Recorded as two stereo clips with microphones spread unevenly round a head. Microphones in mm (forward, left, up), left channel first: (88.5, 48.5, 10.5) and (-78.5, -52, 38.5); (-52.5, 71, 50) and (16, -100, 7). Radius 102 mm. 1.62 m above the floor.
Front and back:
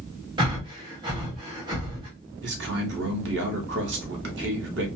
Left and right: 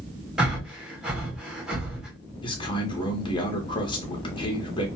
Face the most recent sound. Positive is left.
turn(degrees=175)